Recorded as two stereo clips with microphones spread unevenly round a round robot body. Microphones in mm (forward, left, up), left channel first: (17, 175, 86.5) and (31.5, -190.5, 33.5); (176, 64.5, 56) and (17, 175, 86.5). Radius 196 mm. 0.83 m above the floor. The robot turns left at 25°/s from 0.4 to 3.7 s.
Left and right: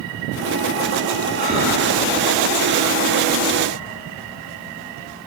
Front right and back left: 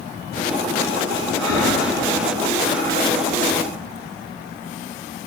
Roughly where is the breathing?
Behind.